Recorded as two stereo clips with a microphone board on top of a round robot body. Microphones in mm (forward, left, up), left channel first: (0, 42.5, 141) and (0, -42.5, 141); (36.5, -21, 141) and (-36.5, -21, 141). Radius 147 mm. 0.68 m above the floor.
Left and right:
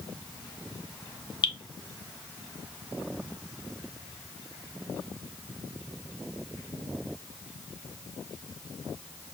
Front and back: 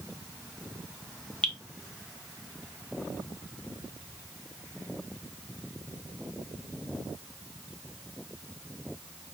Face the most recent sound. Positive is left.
turn(degrees=75)